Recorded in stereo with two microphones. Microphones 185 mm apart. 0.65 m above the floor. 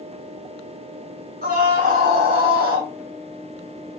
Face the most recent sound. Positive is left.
turn(degrees=-50)  # may be behind; listen again after turning